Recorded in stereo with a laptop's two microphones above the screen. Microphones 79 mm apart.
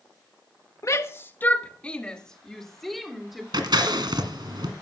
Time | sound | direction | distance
0.8 | a shout | 40° left (ahead or behind) | 1.4 m
3.5 | scissors | 65° right (ahead or behind) | 2 m